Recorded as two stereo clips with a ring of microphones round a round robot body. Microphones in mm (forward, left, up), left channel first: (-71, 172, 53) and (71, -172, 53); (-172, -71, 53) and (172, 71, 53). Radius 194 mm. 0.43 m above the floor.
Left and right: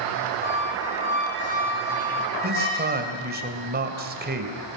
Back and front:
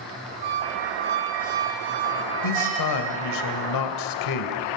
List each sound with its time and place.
0.4 s a squeak: 50° left, 5.5 m
2.4 s a man speaking: 130° right, 2.5 m